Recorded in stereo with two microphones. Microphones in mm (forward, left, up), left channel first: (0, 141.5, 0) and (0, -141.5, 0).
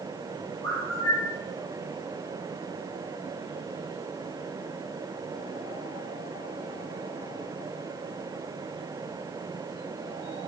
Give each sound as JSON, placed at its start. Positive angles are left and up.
{"t": 0.6, "sound": "a bird", "side_deg": -55, "distance_m": 5.0}